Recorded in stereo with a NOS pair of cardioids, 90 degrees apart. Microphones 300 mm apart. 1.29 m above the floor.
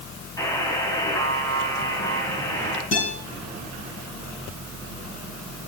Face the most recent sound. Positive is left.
turn(degrees=40)